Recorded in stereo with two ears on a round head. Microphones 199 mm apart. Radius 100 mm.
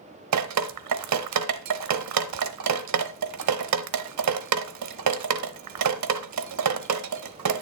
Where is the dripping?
85° right, 0.9 m.